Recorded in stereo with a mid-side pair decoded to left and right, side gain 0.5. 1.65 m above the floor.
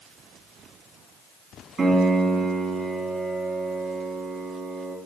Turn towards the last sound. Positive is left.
turn(degrees=-35)